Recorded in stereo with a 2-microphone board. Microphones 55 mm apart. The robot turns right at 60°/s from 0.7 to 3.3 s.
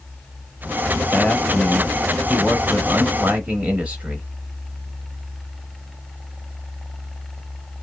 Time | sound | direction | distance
1.1 | a man speaking | 25° left (ahead or behind) | 0.9 m